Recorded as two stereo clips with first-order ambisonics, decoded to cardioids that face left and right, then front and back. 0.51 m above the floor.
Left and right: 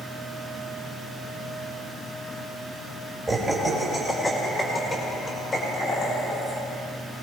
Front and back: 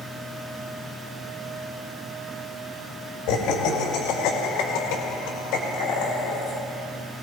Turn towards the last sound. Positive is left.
turn(degrees=30)